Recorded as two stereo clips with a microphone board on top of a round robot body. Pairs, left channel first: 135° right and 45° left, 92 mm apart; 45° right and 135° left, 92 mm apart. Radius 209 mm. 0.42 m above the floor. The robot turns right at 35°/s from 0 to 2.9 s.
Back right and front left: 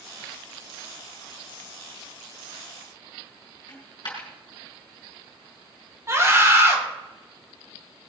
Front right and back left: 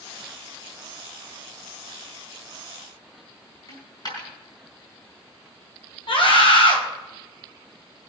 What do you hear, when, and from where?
3.7 s a dropped coin: 90° right, 4.5 m
6.1 s a scream: 15° right, 4 m